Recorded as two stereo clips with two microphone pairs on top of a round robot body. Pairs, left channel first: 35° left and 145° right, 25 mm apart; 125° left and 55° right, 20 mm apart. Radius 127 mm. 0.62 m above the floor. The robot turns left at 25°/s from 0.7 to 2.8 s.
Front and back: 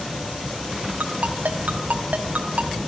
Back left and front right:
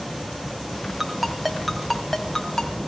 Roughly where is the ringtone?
Behind right.